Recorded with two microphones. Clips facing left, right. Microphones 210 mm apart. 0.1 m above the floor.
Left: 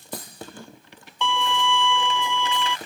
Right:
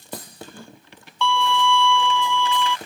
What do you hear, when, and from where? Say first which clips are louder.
1.2 s a violin: right 4 dB; 20° left (ahead or behind)